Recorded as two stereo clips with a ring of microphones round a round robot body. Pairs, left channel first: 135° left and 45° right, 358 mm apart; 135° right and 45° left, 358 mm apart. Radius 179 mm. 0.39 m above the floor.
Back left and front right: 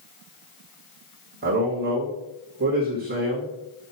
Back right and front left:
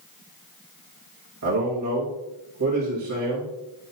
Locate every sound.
1.4 s a man speaking: 10° left, 2.5 m